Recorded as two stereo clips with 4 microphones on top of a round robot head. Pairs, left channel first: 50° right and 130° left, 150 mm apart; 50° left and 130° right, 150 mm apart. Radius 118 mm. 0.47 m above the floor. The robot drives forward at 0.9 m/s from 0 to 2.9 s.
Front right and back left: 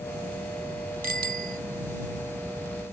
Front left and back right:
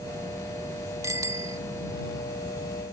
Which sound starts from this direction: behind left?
A bicycle bell, at 1.0 s.